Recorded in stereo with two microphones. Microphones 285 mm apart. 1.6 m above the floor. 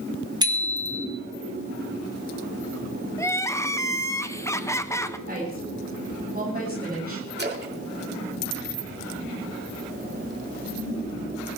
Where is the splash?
35° right (ahead or behind), 2 m.